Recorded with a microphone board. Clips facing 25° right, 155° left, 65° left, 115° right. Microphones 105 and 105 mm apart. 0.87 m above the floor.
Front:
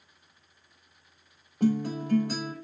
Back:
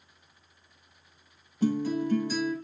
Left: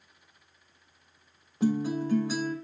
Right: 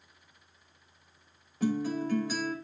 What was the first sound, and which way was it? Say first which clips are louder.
A guitar: even, left 3 dB; straight ahead.